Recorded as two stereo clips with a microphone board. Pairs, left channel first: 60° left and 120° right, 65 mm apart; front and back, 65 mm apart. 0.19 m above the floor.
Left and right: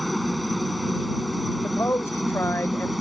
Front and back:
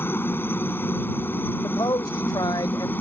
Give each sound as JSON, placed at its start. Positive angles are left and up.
{"t": 0.0, "sound": "a helicopter", "azimuth_deg": -30}
{"t": 1.6, "sound": "a man speaking", "azimuth_deg": 10}